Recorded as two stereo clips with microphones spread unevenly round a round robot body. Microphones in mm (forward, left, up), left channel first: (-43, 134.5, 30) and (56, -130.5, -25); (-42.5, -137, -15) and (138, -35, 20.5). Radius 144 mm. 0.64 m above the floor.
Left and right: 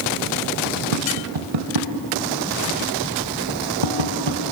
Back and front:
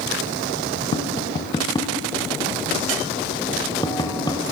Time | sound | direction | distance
0.9 | tapping | 80° right | 1.0 m